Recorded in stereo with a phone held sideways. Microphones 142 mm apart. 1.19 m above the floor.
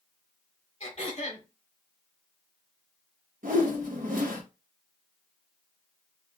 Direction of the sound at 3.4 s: 70° right (ahead or behind).